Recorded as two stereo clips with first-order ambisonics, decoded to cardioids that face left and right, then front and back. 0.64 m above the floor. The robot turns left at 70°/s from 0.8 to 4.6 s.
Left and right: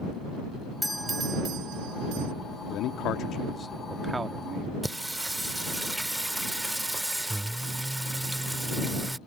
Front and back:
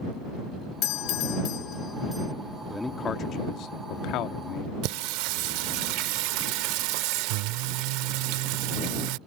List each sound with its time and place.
0.8 s a doorbell: 5° left; by 2.3 s 100° right
2.7 s a man speaking: 90° left; by 4.7 s 45° right
4.8 s singing: 175° right